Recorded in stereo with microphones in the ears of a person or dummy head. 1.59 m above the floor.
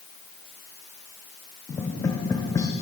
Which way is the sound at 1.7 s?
15° left (ahead or behind).